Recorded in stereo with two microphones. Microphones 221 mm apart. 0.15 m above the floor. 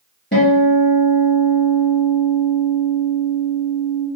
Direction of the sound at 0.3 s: 55° left (ahead or behind).